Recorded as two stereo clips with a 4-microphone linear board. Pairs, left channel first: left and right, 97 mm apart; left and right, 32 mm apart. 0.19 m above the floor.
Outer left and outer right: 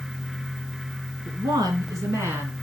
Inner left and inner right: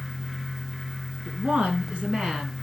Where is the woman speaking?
45° right (ahead or behind), 2.5 m; by 2.5 s 20° right (ahead or behind), 2.5 m.